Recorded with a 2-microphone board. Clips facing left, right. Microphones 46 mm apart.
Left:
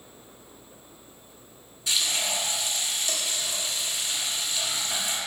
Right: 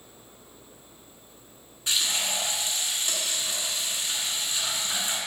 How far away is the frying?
About 1.6 m.